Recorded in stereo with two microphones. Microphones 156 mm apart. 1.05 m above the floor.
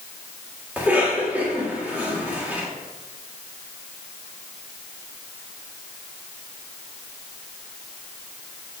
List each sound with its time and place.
0.8 s a cough: 10° right (ahead or behind), 1.9 m